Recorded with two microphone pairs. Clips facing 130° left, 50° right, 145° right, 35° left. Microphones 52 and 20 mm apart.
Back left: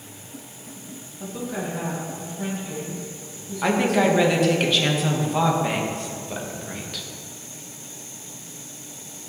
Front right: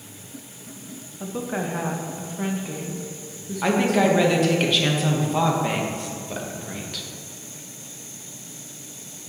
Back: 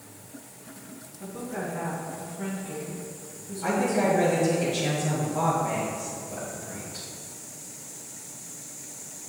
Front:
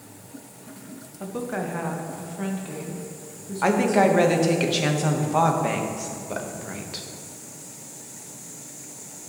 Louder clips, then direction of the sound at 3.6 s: Even, front 5 dB; 40° left.